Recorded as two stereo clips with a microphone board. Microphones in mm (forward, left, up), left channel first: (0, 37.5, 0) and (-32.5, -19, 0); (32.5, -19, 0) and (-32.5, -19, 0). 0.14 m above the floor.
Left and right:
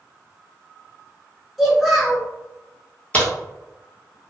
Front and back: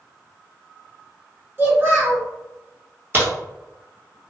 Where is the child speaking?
155° left, 1.3 m.